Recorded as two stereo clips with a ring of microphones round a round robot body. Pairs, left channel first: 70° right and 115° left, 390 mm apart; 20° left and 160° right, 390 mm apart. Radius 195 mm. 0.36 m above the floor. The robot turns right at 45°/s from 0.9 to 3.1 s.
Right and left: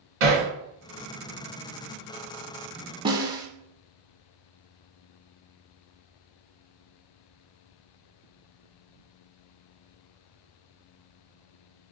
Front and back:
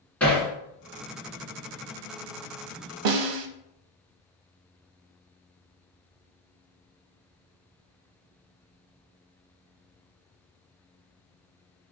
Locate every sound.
0.2 s hammering: 110° left, 2 m
3.0 s a snare drum: 170° right, 0.7 m; by 3.5 s 165° right, 0.7 m